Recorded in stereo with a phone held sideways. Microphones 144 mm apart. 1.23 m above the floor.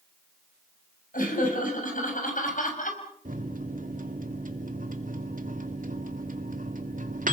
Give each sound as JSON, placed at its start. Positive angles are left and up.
{"t": 1.1, "sound": "laughter", "side_deg": 70, "distance_m": 7.0}
{"t": 3.2, "sound": "a microwave", "side_deg": -70, "distance_m": 2.0}